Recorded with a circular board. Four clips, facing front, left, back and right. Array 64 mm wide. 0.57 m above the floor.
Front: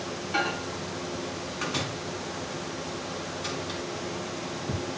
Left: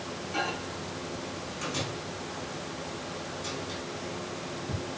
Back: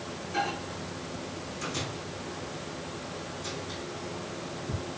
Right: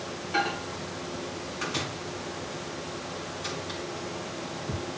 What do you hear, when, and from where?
0.3 s a microwave: 25° right, 4 m